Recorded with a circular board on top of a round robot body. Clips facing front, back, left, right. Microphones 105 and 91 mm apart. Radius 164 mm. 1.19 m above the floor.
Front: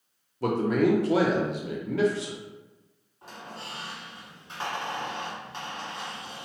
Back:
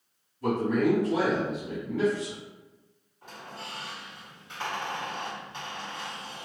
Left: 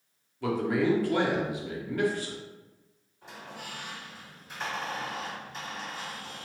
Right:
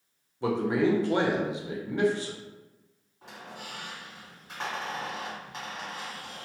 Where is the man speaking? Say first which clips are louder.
Front 1 dB, right 1 dB; 25° right, 0.6 m.